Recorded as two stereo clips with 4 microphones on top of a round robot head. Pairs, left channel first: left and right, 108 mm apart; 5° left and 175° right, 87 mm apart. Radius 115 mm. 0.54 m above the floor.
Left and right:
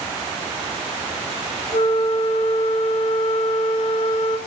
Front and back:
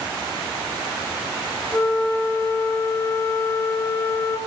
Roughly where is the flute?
Ahead left.